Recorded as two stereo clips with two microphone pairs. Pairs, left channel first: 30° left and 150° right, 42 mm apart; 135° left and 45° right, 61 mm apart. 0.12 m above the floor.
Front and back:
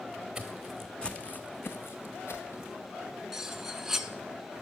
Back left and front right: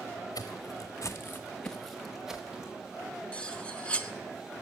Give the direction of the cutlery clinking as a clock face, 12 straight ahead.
7 o'clock.